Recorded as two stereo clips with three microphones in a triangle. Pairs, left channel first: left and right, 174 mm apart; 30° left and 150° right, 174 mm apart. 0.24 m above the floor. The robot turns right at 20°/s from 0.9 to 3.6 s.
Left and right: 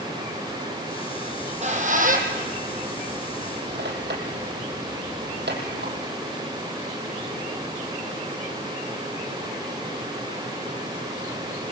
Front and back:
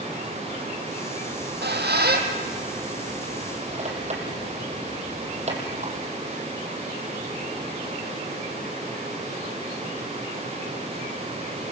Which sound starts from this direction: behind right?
A squeak, at 1.3 s.